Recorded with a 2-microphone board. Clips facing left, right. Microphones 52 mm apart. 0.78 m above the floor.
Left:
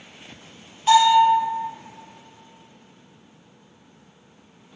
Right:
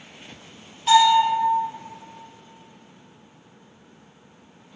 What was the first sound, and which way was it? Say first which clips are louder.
A bell: left 1 dB; 5° left (ahead or behind).